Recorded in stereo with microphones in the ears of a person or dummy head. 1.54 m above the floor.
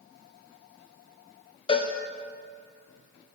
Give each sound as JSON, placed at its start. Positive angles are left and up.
{"t": 1.7, "sound": "a cowbell", "side_deg": 30, "distance_m": 0.9}